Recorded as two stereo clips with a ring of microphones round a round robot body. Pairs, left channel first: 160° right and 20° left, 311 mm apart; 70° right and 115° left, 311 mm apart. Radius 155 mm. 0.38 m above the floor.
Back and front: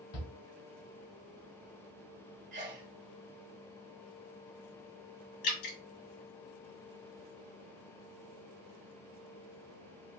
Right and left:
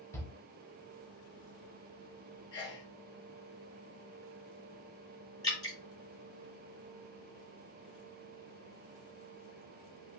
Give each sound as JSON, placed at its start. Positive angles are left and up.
{"t": 0.1, "sound": "a shout", "azimuth_deg": -145, "distance_m": 2.0}
{"t": 2.5, "sound": "a sneeze", "azimuth_deg": -5, "distance_m": 0.9}
{"t": 5.4, "sound": "dripping", "azimuth_deg": -145, "distance_m": 2.5}